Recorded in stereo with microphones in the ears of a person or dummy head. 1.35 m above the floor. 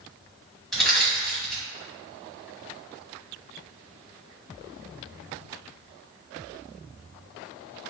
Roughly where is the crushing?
Centre.